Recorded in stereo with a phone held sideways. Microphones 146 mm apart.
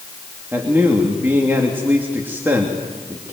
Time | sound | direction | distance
0.5 | a man speaking | 15° right (ahead or behind) | 3 m